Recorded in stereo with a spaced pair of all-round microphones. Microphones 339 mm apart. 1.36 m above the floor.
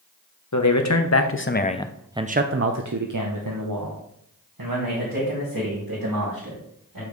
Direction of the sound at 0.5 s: 60° left (ahead or behind).